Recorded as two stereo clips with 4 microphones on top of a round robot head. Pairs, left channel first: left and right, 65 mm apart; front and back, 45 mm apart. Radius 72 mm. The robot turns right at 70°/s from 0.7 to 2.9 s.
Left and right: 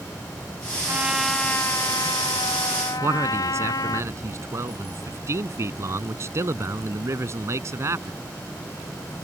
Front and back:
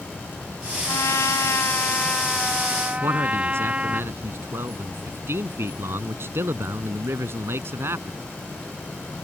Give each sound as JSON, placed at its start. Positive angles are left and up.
{"t": 0.9, "sound": "a trumpet", "azimuth_deg": -25}
{"t": 3.0, "sound": "a man speaking", "azimuth_deg": -135}